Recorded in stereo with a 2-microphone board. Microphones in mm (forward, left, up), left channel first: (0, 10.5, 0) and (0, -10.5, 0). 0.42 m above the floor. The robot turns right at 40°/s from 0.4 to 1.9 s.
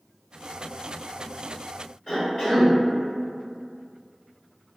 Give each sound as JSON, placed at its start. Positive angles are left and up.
{"t": 2.1, "sound": "a cough", "side_deg": 40, "distance_m": 1.9}